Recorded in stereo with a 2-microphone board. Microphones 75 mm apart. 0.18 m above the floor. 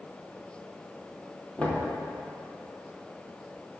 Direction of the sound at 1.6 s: 20° left (ahead or behind).